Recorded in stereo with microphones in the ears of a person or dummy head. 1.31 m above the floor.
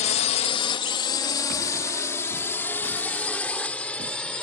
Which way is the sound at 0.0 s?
35° left (ahead or behind).